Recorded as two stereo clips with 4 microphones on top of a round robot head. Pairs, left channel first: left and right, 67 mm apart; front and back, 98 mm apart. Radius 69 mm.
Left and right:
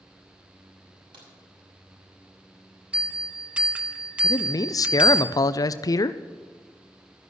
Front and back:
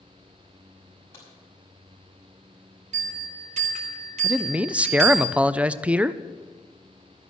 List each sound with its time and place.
1.1 s a crack: 70° right, 6 m
2.9 s a bell: 160° right, 1.8 m
4.2 s a man speaking: 105° left, 0.5 m